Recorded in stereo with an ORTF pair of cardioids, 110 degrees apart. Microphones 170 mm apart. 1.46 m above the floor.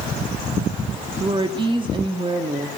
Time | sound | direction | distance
1.2 | a woman speaking | 30° right | 2.5 m